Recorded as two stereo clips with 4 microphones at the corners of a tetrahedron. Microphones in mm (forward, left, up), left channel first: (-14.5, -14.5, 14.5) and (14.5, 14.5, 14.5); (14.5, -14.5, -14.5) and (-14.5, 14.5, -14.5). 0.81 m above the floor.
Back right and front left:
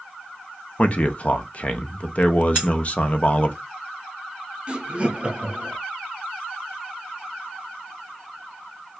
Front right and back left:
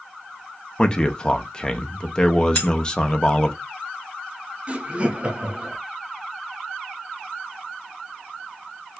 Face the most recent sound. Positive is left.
turn(degrees=95)